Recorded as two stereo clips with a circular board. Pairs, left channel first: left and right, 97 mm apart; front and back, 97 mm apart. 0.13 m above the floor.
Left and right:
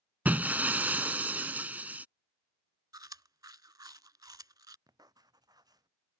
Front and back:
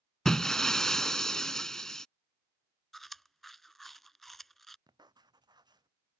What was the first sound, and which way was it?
Breaking glass, 70° right.